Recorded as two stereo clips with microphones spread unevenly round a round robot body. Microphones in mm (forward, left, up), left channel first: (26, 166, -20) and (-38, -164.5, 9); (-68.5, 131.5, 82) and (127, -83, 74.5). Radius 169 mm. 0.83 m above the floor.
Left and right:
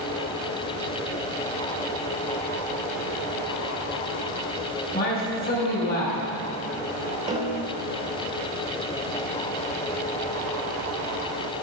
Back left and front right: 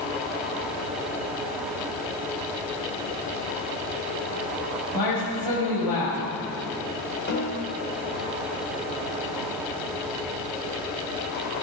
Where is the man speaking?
145° left, 5 m.